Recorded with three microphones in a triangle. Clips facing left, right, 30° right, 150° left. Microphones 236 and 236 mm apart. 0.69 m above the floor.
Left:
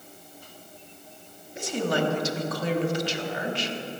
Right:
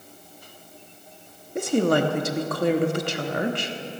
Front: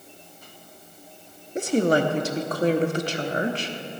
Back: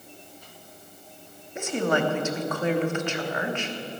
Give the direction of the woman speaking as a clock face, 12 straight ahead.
3 o'clock.